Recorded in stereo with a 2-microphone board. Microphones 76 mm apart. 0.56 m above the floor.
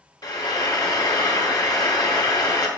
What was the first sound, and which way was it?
Frying, 60° left (ahead or behind).